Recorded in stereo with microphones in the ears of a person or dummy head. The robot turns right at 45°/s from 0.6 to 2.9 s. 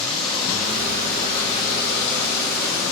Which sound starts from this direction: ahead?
Running water, at 0.0 s.